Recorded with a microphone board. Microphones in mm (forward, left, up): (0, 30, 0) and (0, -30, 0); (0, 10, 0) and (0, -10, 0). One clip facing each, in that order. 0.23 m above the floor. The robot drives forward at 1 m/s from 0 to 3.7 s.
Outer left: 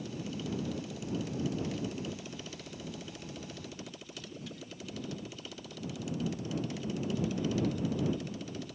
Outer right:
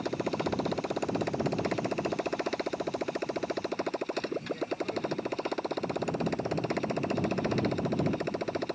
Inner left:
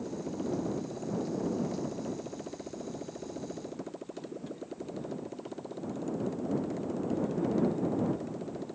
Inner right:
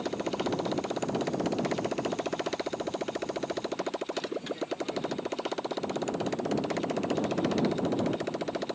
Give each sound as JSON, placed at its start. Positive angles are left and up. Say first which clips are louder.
{"t": 0.0, "sound": "a motorcycle", "louder": "outer right 8 dB, inner right 5 dB", "side_deg": -55}